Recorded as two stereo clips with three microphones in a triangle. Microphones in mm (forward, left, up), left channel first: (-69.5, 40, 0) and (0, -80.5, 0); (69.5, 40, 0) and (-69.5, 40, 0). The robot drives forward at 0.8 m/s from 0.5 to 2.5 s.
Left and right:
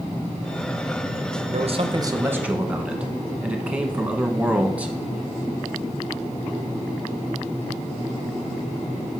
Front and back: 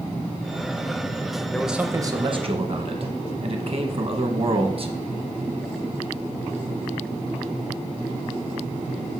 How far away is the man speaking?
About 0.7 m.